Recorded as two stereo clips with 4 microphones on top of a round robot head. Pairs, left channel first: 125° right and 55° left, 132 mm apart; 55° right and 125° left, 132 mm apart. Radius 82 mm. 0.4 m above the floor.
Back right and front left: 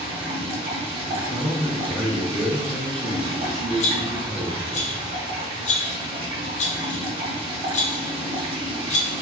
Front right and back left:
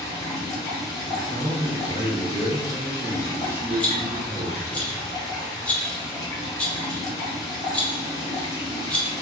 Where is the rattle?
135° right, 0.7 m.